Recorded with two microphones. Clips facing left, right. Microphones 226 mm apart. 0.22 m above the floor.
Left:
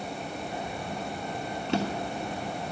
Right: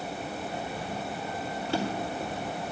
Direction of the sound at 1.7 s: 20° left (ahead or behind).